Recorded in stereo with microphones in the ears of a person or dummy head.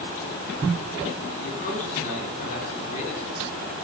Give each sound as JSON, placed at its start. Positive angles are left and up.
{"t": 1.4, "sound": "a man speaking", "side_deg": 45, "distance_m": 4.0}